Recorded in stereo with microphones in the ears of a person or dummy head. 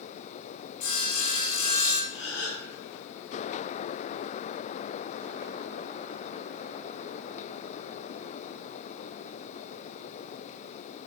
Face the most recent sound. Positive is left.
turn(degrees=35)  # may be behind; listen again after turning